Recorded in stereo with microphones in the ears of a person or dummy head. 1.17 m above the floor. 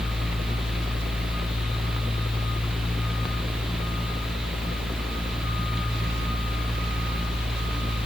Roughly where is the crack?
I don't hear a crack.